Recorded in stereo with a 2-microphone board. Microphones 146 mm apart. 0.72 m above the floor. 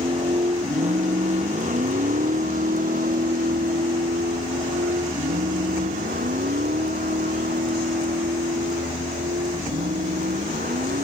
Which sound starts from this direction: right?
A vehicle, at 0.0 s.